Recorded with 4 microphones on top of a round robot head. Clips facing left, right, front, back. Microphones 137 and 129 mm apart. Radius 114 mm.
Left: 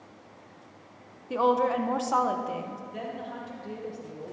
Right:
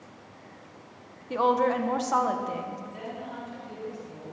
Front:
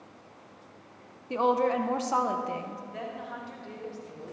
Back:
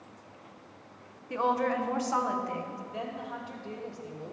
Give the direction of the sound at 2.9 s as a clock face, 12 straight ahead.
8 o'clock.